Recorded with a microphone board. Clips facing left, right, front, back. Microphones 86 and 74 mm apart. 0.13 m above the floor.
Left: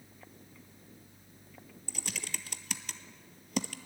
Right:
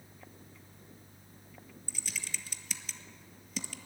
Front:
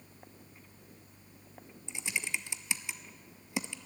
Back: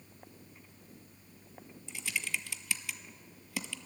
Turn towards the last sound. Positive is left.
turn(degrees=65)